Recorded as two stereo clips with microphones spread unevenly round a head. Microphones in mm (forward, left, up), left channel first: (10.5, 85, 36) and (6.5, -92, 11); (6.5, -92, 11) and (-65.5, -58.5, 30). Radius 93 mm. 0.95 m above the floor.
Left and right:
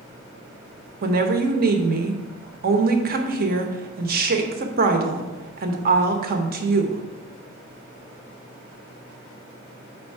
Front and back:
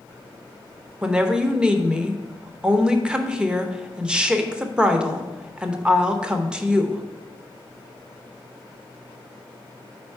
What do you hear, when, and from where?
1.0 s a woman speaking: 120° right, 0.9 m